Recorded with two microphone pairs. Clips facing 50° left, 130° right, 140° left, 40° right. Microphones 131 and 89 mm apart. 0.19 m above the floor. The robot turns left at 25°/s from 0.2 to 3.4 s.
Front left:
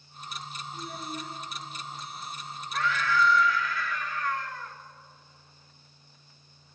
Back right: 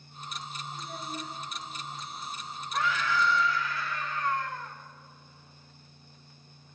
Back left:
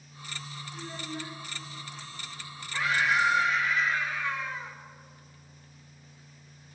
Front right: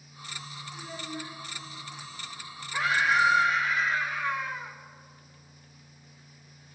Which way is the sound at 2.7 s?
85° right.